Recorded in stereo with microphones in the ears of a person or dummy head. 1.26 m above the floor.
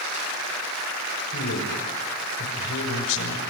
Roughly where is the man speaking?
Left.